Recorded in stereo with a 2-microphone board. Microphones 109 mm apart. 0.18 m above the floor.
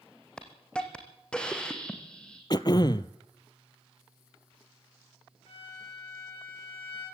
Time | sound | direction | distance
0.4 | a hiss | 10° left (ahead or behind) | 2.5 m
2.5 | throat clearing | 40° left (ahead or behind) | 0.7 m
5.5 | a violin | 55° left (ahead or behind) | 9 m